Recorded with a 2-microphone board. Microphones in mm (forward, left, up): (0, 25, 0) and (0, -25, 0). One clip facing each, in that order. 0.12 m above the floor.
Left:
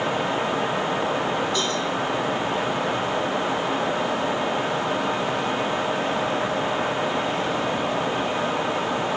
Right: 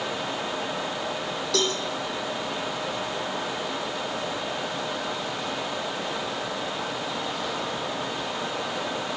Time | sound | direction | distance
1.5 | a cowbell | 75° right (ahead or behind) | 6 m